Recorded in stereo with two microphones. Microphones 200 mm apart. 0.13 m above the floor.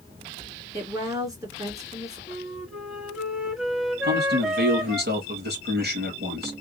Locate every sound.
0.7 s a woman speaking: 15° right (ahead or behind), 1.8 m
2.3 s a flute: centre (ahead or behind), 1.0 m
4.0 s a man speaking: 50° right (ahead or behind), 2.5 m